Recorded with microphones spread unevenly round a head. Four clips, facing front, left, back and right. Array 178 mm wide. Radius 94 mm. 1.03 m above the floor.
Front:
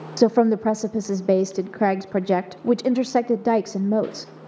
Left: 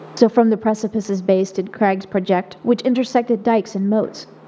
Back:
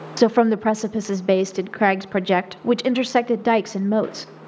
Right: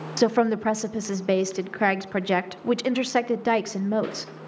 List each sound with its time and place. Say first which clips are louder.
0.2 s a woman speaking: left 7 dB, back 1 dB; 105° left, 0.6 m